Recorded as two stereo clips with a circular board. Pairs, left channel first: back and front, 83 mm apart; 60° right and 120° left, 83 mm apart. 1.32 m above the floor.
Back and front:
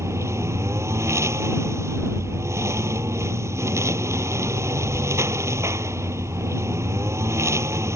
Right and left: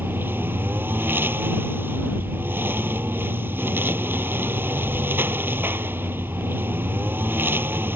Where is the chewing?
No chewing in this recording.